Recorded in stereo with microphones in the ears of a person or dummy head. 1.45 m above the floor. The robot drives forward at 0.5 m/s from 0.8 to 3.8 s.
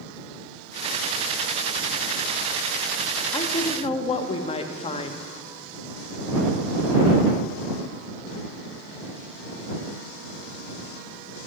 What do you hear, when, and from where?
3.3 s a woman speaking: 20° left (ahead or behind), 0.7 m; by 5.3 s 30° left (ahead or behind), 0.6 m